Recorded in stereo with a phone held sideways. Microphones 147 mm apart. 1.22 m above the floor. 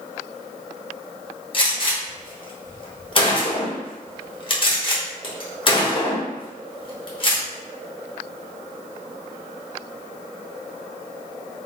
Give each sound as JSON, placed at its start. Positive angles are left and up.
{"t": 1.5, "sound": "a gunshot", "side_deg": 35, "distance_m": 0.9}